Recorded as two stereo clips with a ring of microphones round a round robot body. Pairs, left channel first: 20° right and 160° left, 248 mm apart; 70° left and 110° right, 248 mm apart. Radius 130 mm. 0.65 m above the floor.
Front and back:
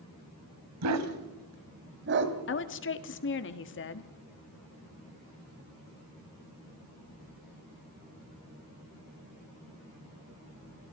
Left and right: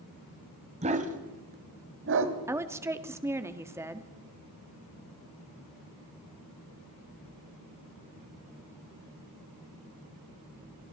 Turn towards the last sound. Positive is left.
turn(degrees=-35)